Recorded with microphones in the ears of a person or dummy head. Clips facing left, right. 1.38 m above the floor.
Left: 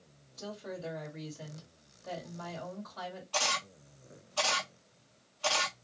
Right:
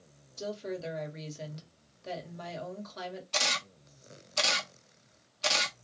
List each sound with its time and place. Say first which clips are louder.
0.4 s a woman speaking: right 5 dB; 35° right (ahead or behind), 1.6 m
3.3 s a camera shutter: left 1 dB; 30° right (ahead or behind), 0.8 m